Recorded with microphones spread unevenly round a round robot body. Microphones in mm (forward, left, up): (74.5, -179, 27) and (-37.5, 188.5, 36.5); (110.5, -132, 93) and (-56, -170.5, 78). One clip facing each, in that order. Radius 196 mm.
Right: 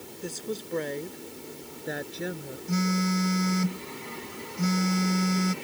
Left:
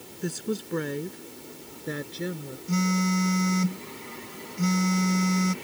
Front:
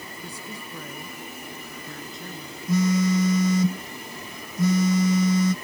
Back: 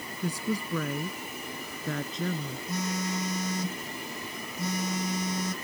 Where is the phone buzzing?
20° left.